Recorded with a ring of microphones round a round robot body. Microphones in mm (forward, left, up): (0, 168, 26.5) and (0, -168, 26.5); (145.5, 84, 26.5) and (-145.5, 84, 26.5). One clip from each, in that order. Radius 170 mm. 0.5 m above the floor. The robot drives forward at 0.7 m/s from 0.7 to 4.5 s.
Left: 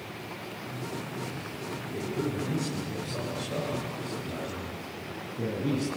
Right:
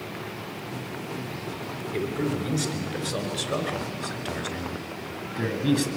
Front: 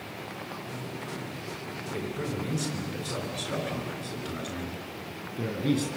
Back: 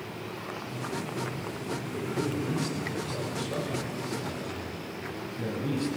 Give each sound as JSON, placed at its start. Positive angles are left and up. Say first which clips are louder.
{"t": 1.9, "sound": "a man speaking", "louder": "right 4 dB, back 1 dB", "azimuth_deg": -60, "distance_m": 7.0}